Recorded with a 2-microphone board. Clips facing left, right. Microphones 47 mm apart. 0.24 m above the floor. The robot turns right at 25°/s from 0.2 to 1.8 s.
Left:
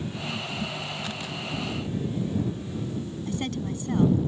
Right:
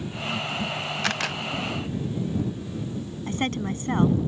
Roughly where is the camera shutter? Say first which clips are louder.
Right 7 dB; right.